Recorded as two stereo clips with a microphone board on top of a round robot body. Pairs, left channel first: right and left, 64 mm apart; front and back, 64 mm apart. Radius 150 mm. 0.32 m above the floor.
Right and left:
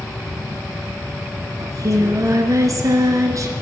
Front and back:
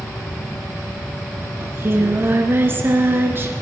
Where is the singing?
125° left, 2 m.